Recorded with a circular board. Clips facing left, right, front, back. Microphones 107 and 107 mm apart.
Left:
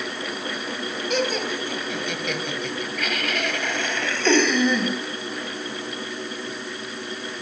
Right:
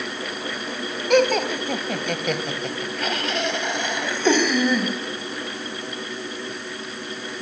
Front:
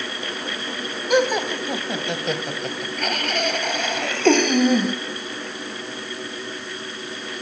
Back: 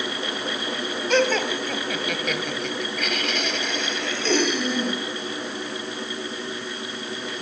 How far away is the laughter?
About 2.0 m.